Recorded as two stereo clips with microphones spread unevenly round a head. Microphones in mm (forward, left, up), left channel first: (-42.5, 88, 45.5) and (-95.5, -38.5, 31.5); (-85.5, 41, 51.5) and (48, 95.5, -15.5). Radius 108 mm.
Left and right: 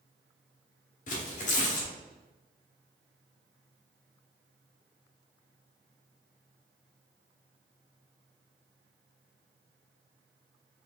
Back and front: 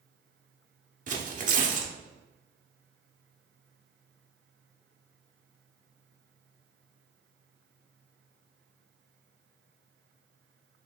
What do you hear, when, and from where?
1.1 s tearing paper: 65° left, 0.9 m